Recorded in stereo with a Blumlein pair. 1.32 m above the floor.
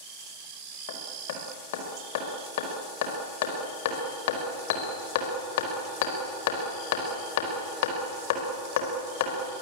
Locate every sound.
0.9 s hammering: 55° left, 4.5 m